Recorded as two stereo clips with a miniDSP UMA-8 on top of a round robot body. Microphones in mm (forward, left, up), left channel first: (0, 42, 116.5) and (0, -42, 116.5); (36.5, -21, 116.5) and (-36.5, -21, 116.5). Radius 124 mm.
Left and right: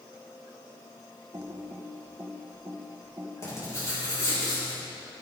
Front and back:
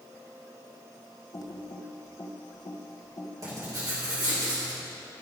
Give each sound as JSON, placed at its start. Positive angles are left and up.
{"t": 1.3, "sound": "typing on a keyboard", "azimuth_deg": -40, "distance_m": 1.2}
{"t": 3.4, "sound": "writing", "azimuth_deg": 140, "distance_m": 4.0}